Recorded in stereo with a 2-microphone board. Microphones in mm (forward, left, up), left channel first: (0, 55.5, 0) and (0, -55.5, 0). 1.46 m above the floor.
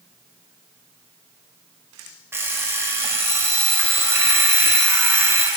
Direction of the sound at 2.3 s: 20° right (ahead or behind).